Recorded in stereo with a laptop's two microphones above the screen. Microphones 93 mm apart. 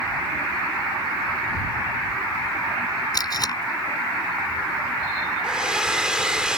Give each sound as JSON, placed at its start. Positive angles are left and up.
{"t": 3.1, "sound": "tape being pulled", "side_deg": 45}
{"t": 5.4, "sound": "a hair dryer", "side_deg": -10}